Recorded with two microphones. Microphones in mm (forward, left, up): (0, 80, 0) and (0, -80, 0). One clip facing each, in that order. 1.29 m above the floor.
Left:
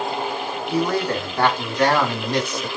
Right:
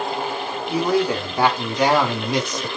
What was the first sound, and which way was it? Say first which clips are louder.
A man speaking: right 2 dB; 10° right (ahead or behind).